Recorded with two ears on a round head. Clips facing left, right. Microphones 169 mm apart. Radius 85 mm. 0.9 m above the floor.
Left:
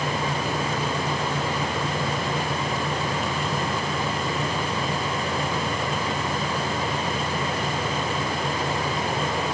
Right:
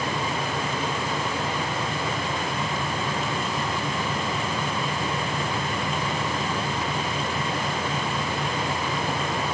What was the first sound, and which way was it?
Only background noise.